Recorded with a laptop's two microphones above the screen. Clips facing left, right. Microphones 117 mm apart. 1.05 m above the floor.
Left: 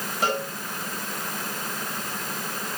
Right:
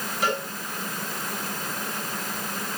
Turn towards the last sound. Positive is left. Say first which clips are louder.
# left 1 dB
turn(degrees=50)  # may be behind; listen again after turning